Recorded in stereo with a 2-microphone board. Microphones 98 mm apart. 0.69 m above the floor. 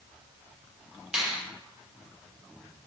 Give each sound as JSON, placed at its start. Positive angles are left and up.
{"t": 1.1, "sound": "a finger snap", "side_deg": -10, "distance_m": 1.7}